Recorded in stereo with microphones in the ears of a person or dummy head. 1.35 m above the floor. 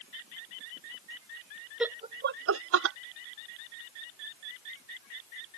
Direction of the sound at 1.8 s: 5° right (ahead or behind).